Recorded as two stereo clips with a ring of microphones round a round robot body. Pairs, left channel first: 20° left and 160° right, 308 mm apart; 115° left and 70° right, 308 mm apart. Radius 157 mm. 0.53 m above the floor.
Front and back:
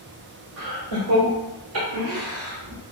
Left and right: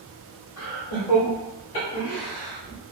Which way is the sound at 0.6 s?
150° left.